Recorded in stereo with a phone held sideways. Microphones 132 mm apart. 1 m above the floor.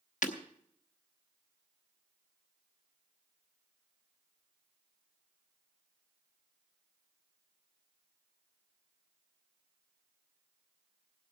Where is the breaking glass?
75° left (ahead or behind), 1.0 m.